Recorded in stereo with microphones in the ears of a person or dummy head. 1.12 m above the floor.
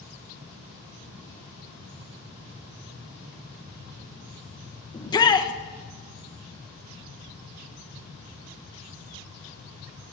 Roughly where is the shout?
Left.